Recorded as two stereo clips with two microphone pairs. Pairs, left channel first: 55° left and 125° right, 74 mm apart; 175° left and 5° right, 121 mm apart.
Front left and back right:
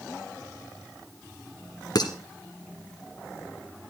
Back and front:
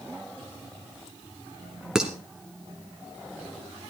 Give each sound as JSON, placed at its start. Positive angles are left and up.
{"t": 1.9, "sound": "dishes clattering", "azimuth_deg": 80, "distance_m": 1.9}